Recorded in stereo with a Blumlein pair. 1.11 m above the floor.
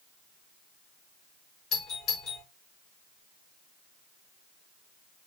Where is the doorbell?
35° left, 5.5 m.